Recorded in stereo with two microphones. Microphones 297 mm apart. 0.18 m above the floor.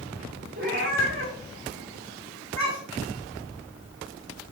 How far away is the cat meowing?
About 5 m.